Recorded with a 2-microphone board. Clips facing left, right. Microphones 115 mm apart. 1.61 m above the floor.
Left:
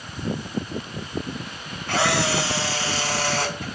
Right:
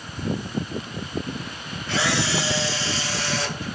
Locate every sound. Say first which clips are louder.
1.9 s a camera shutter: left 2 dB; 65° left (ahead or behind), 4.5 m